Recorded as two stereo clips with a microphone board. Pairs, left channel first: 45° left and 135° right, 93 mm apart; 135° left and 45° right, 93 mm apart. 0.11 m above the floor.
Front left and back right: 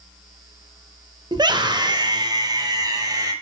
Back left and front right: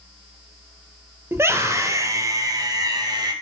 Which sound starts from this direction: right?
A scream, at 1.3 s.